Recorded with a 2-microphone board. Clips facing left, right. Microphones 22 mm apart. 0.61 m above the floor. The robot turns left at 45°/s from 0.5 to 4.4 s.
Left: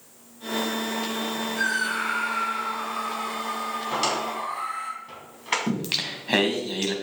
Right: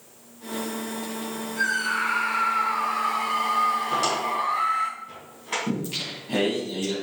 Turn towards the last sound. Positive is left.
turn(degrees=85)